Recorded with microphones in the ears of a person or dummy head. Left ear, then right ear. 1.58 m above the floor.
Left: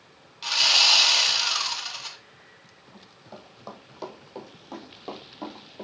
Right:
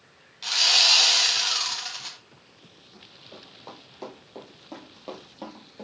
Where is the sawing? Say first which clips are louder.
Even; 10° left (ahead or behind), 1.5 m.